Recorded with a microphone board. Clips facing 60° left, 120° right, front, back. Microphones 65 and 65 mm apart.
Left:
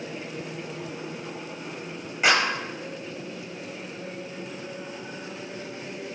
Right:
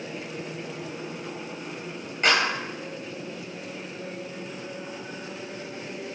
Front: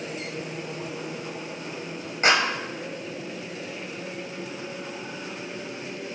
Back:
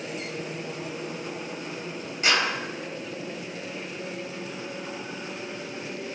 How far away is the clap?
About 1.4 m.